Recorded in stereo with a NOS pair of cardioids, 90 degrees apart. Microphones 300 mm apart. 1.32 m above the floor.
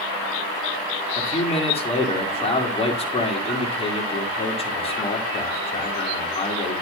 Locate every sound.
1.2 s a man speaking: 20° left, 4 m